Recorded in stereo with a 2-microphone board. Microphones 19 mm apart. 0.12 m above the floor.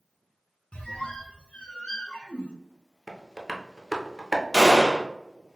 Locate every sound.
0.7 s a squeak: 65° left (ahead or behind), 0.6 m
3.1 s tapping: 5° left (ahead or behind), 0.7 m
4.5 s a gunshot: 20° left (ahead or behind), 0.8 m